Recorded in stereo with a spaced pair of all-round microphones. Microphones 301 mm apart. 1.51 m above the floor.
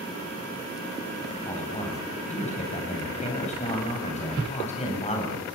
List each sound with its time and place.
1.4 s a man speaking: 20° left (ahead or behind), 9.5 m